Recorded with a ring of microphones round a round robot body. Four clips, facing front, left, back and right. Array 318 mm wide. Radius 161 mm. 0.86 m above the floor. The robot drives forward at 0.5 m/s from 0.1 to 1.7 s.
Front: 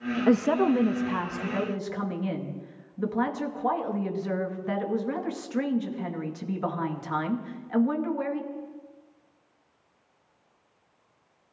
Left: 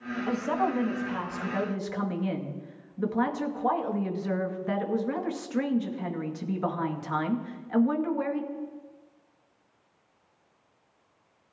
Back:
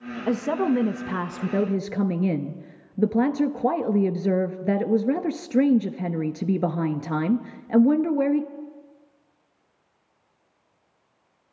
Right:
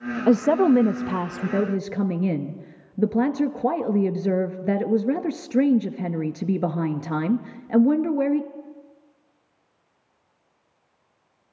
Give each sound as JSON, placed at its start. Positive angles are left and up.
{"t": 0.3, "sound": "a woman speaking", "azimuth_deg": -70, "distance_m": 0.6}